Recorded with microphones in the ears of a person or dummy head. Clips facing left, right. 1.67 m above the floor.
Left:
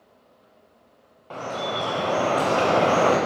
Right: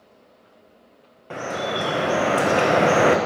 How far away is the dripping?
About 0.5 m.